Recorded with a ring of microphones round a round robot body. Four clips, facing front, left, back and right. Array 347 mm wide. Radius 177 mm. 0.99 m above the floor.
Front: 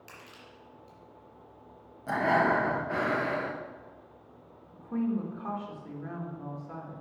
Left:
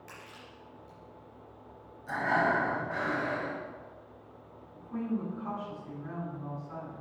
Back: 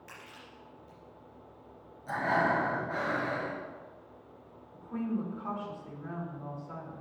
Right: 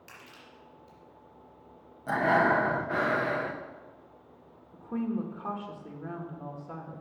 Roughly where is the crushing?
Ahead right.